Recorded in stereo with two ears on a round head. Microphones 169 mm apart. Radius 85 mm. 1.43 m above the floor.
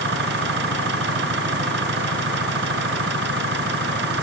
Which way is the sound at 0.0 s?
60° right (ahead or behind).